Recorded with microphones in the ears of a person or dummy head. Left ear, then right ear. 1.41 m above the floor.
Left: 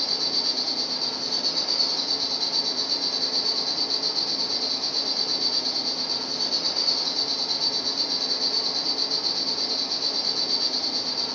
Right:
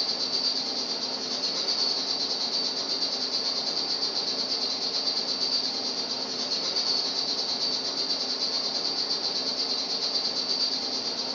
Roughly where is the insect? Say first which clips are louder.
Left 3 dB; right.